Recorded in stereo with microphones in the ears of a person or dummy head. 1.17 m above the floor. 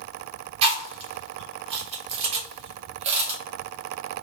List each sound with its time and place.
0.6 s chewing: 35° right (ahead or behind), 0.8 m